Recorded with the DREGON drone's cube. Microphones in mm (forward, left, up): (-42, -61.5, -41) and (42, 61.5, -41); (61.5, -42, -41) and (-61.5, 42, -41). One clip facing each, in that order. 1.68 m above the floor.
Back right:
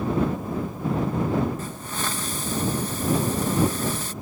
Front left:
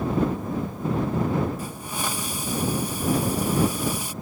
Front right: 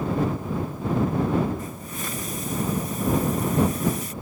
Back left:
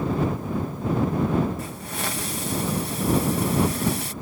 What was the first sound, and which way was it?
A hiss, 135° left.